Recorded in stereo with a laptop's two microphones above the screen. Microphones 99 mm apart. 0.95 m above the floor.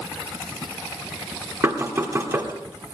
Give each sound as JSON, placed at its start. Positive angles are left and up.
{"t": 1.6, "sound": "knocking", "side_deg": -25, "distance_m": 1.5}